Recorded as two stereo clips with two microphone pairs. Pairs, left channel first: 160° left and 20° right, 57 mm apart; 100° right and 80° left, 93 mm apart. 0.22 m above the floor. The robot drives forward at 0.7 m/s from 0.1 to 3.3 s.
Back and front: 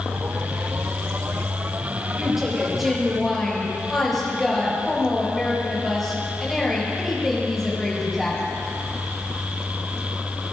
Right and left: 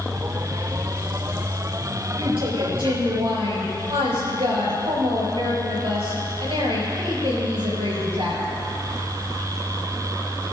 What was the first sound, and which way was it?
A woman speaking, 65° left.